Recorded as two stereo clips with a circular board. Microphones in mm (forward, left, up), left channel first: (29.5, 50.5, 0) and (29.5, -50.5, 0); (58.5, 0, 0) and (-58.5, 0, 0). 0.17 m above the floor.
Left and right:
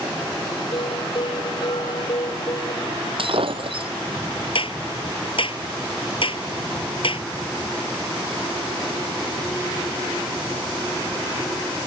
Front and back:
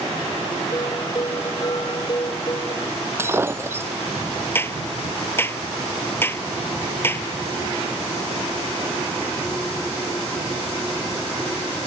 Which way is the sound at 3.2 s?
110° right.